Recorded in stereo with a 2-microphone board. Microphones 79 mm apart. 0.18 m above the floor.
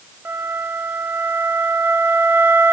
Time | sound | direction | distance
0.2 | a flute | 25° right (ahead or behind) | 0.6 m